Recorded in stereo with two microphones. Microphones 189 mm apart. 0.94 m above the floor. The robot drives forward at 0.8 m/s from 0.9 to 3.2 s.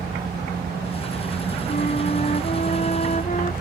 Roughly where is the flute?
Left.